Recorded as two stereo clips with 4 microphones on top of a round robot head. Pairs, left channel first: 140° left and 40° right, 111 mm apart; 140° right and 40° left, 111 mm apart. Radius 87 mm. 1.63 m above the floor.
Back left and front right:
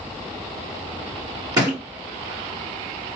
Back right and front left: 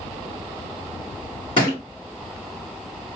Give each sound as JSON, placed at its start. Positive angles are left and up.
{"t": 1.6, "sound": "a thud", "azimuth_deg": -100, "distance_m": 2.0}